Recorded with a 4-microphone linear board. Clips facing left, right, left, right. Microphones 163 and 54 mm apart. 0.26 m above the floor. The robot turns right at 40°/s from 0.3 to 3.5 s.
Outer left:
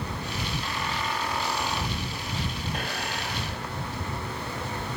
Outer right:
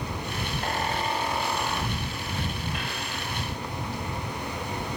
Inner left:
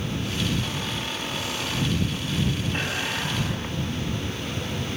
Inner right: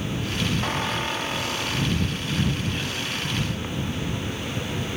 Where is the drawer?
I don't hear a drawer.